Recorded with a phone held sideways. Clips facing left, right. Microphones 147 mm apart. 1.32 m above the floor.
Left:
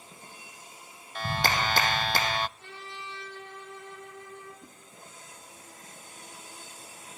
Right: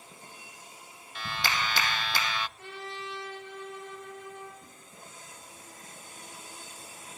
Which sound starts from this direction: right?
A trumpet, at 2.6 s.